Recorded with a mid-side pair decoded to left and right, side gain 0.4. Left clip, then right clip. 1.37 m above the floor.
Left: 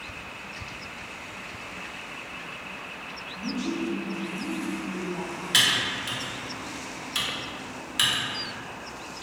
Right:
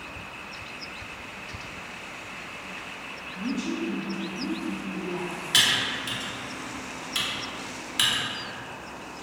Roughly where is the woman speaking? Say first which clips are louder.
Even; ahead right.